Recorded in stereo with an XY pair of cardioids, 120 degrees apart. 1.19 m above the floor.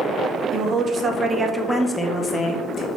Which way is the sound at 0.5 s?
50° right.